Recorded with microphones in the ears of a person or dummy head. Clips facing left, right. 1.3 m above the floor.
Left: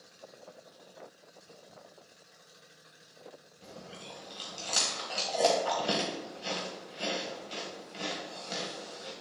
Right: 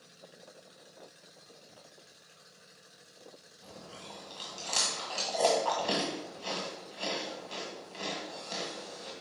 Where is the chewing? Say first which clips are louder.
Left 1 dB; 20° left (ahead or behind), 1.4 m.